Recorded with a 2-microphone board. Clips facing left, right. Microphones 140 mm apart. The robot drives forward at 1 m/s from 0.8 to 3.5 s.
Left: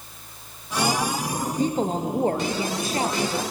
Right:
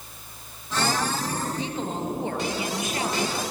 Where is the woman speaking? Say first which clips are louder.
Left 6 dB; 45° left (ahead or behind), 2.5 m; by 3.4 s 30° left (ahead or behind), 3.5 m.